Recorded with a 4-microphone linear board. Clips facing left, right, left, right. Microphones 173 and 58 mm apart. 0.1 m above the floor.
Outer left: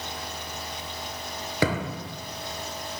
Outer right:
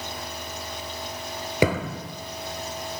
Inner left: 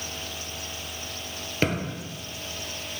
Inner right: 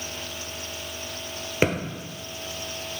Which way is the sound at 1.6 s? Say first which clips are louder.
Outer right 3 dB, inner right 3 dB; 20° right (ahead or behind).